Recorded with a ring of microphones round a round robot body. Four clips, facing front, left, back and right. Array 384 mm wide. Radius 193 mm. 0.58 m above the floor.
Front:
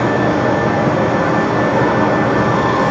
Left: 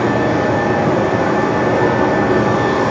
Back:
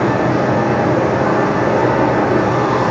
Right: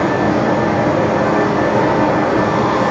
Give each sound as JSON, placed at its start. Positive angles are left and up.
{"t": 0.0, "sound": "running water", "azimuth_deg": -5, "distance_m": 3.0}